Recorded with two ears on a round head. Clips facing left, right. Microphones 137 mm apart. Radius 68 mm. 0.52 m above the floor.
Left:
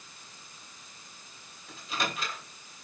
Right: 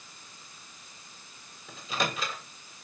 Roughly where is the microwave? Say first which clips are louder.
Right 2 dB; right.